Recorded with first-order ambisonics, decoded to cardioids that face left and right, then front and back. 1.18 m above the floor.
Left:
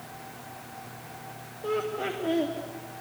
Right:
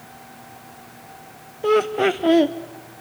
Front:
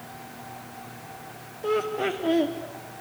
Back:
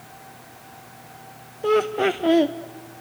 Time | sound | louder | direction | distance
1.6 | laughter | right 12 dB, back 6 dB | 120° right | 0.6 m